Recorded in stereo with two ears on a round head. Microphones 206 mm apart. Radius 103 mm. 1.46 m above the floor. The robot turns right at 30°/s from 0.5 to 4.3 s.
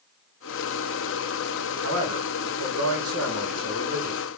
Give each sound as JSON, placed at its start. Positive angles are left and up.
{"t": 1.8, "sound": "a man speaking", "azimuth_deg": -110, "distance_m": 1.1}